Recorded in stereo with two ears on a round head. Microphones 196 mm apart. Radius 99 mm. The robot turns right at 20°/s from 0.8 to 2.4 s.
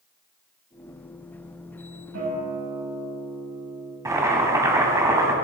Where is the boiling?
15° right (ahead or behind), 2.5 m.